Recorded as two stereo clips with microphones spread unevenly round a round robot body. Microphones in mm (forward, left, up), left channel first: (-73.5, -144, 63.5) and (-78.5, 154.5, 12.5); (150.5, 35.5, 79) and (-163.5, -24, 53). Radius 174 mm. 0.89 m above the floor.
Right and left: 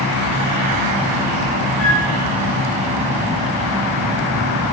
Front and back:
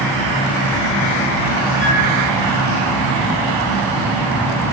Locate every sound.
1.8 s a flute: 130° right, 8.5 m